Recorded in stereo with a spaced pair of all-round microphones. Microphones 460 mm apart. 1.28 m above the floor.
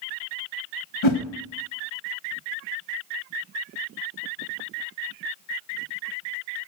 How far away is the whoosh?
About 1.1 m.